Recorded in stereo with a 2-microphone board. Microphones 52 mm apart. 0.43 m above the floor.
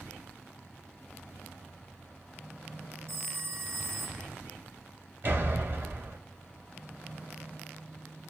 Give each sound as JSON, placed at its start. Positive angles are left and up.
{"t": 3.1, "sound": "a phone ringing", "side_deg": -55, "distance_m": 0.7}
{"t": 5.2, "sound": "a door slam", "side_deg": -45, "distance_m": 1.4}